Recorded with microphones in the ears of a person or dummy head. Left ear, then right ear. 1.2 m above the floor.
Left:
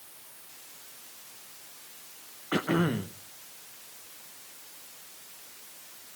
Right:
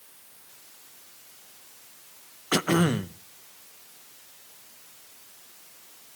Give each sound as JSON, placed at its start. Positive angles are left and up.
{"t": 2.5, "sound": "throat clearing", "side_deg": -90, "distance_m": 0.7}